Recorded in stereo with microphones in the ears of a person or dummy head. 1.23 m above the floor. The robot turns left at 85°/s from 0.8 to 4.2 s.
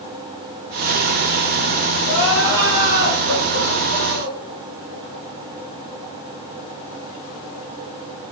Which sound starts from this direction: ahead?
Crying, at 2.0 s.